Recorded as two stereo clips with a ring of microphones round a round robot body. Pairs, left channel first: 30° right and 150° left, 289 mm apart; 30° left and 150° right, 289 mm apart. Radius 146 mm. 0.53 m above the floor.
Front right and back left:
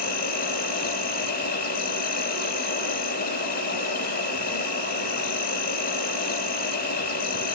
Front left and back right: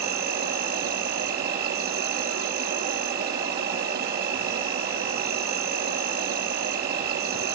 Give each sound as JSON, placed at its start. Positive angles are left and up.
{"t": 0.0, "sound": "an insect", "azimuth_deg": -90, "distance_m": 3.5}